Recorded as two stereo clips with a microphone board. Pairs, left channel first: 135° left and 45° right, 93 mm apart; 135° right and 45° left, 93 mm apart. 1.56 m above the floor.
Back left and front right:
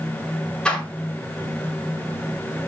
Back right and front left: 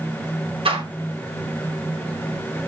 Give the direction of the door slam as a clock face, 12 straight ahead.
10 o'clock.